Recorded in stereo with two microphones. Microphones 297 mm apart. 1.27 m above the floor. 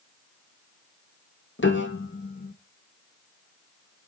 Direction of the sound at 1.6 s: 40° left (ahead or behind).